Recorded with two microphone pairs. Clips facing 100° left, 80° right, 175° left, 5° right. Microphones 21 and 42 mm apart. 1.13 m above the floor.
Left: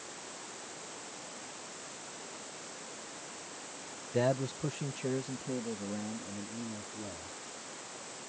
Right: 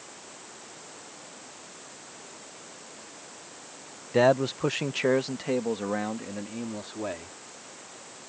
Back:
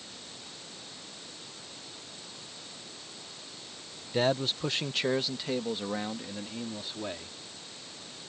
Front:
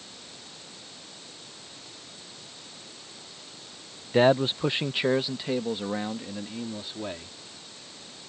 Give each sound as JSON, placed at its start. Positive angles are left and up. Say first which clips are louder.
{"t": 4.1, "sound": "a man speaking", "louder": "right 9 dB, front 7 dB", "azimuth_deg": -45}